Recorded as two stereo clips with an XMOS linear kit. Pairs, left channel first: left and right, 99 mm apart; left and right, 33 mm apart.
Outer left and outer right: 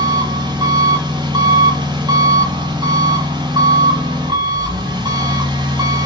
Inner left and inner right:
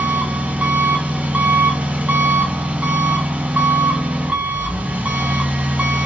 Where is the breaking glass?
No breaking glass in this recording.